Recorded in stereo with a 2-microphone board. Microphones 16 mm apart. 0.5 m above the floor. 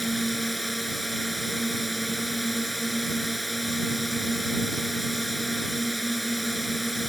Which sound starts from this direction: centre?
A drone, at 0.0 s.